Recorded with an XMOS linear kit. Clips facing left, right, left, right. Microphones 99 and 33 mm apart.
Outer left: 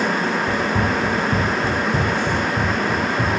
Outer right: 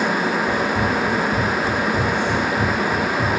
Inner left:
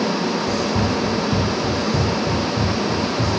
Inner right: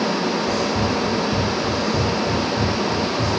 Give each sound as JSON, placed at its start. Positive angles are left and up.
{"t": 0.5, "sound": "running footsteps", "side_deg": 80, "distance_m": 2.0}